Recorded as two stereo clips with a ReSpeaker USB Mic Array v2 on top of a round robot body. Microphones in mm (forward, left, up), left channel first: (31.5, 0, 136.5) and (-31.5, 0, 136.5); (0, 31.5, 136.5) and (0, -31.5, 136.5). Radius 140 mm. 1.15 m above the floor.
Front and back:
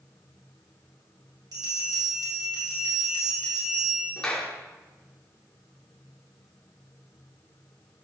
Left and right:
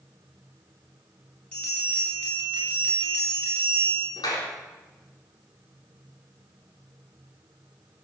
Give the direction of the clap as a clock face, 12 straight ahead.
9 o'clock.